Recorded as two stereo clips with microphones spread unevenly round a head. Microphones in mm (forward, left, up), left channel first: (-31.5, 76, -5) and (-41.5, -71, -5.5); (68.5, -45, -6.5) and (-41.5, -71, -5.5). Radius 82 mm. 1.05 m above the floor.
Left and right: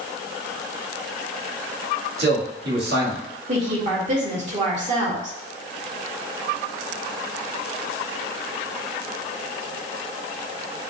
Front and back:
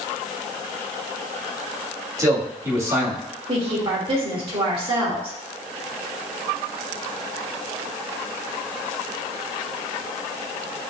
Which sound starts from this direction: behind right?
A woman speaking, at 3.5 s.